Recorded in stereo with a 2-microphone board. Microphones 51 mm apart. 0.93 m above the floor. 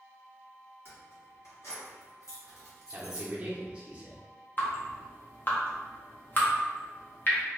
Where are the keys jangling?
45° left (ahead or behind), 1.3 m; by 3.3 s 60° left (ahead or behind), 1.0 m.